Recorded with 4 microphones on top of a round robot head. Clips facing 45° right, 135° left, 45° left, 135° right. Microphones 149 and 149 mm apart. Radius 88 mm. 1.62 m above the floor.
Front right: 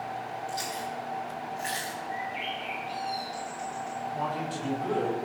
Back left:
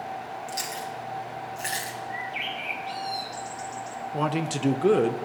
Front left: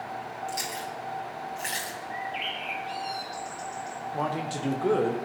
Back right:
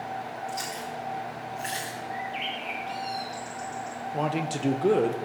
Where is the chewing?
100° left, 2 m.